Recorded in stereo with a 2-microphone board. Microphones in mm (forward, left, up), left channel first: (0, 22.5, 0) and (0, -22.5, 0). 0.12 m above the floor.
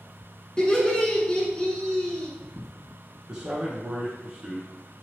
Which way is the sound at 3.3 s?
20° right (ahead or behind).